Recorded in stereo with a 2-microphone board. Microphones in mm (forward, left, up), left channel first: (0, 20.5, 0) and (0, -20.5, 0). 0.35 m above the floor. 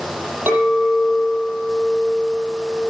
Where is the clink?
70° right (ahead or behind), 8 m.